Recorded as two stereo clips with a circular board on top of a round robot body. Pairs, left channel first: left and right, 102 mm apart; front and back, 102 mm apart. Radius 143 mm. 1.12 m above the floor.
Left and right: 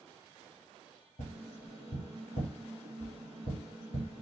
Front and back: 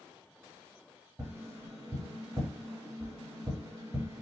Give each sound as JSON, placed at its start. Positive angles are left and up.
{"t": 1.2, "sound": "tapping", "azimuth_deg": 105, "distance_m": 1.2}